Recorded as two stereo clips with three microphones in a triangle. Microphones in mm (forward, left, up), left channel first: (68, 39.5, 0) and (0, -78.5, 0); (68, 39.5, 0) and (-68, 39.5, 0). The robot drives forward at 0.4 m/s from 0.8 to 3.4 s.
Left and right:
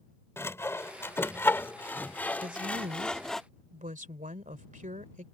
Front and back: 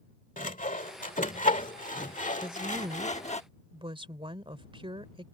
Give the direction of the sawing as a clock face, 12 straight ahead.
12 o'clock.